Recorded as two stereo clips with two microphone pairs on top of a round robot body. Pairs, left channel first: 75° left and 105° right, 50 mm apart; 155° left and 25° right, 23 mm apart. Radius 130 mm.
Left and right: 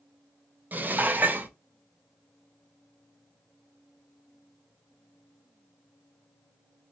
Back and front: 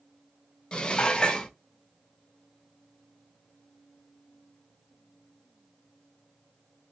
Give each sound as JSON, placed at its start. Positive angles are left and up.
{"t": 0.7, "sound": "dishes clattering", "azimuth_deg": -155, "distance_m": 0.6}